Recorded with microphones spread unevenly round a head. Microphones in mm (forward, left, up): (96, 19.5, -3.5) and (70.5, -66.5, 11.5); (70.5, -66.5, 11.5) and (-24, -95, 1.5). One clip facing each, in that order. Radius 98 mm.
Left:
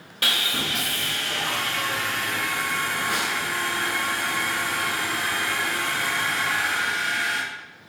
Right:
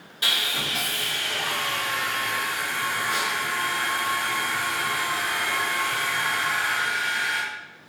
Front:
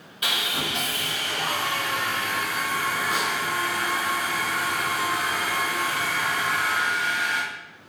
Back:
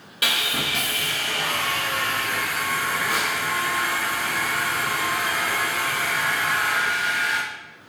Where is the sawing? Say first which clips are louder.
Left 2 dB, back 2 dB; 140° left, 0.6 m.